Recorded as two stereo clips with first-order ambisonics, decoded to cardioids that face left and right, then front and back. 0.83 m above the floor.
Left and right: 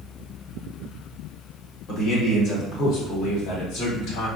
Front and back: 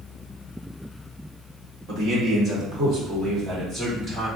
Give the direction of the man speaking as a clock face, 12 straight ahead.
8 o'clock.